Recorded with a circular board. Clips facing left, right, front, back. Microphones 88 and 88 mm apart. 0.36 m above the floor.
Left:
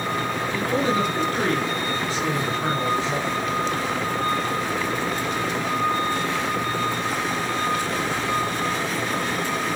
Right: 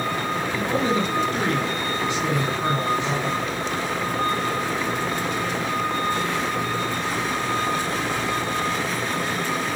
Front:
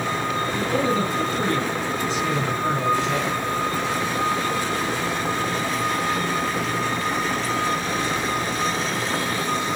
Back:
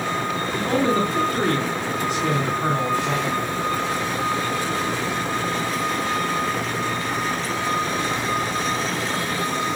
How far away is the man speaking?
About 3 m.